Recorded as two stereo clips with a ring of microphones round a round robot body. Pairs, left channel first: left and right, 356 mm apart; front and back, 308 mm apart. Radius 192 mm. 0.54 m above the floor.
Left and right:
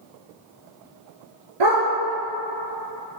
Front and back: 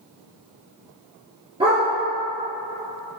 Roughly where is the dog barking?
Right.